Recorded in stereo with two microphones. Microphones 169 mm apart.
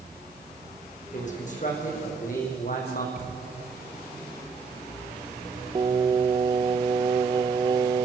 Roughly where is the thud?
Left.